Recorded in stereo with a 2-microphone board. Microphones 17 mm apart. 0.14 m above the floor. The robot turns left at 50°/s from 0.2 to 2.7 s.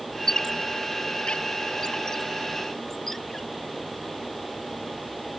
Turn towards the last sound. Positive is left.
turn(degrees=20)  # may be behind; listen again after turning